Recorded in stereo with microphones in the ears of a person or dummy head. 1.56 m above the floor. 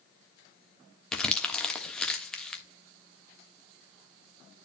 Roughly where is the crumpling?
Centre.